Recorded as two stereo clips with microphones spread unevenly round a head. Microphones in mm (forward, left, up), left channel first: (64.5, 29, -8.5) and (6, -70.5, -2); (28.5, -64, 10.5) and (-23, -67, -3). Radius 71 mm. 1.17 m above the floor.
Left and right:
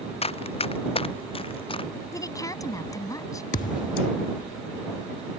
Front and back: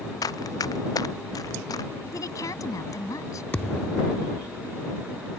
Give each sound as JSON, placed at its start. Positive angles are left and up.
{"t": 0.2, "sound": "running footsteps", "azimuth_deg": 20}
{"t": 2.1, "sound": "a woman speaking", "azimuth_deg": 0}
{"t": 3.5, "sound": "a thud", "azimuth_deg": 65}